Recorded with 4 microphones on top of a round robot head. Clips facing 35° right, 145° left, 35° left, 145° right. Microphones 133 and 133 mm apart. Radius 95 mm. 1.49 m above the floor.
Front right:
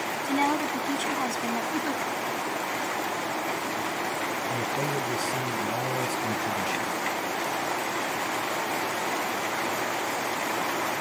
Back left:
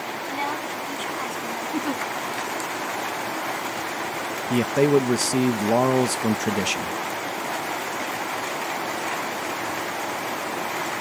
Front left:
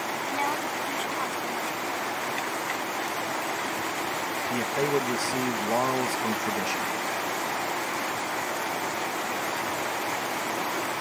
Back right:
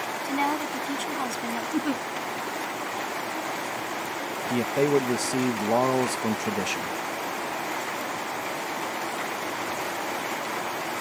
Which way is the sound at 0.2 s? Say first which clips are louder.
Front right 5 dB, back right 4 dB; 85° right.